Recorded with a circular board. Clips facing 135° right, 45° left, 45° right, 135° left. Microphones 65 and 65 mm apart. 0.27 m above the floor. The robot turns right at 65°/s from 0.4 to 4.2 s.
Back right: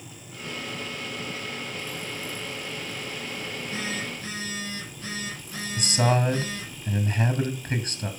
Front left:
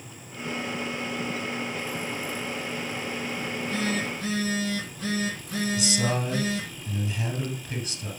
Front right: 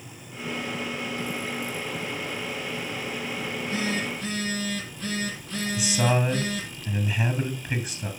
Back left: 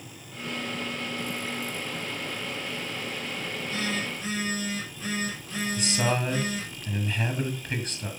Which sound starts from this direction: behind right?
A man speaking, at 5.8 s.